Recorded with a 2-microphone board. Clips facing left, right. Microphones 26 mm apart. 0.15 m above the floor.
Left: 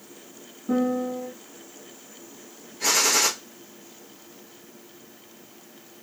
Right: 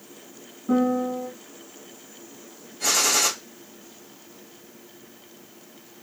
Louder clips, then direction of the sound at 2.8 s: Even; 20° left (ahead or behind).